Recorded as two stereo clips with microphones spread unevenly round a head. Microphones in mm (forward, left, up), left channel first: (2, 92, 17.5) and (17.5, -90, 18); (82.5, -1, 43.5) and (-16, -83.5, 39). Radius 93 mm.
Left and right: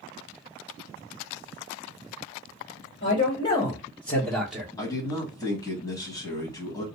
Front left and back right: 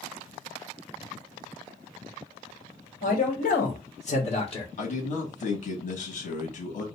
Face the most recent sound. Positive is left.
turn(degrees=25)